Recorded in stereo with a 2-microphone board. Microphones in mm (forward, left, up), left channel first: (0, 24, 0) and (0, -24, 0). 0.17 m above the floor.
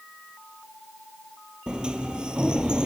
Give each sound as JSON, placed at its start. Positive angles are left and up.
{"t": 1.7, "sound": "a sliding door", "side_deg": -20, "distance_m": 1.5}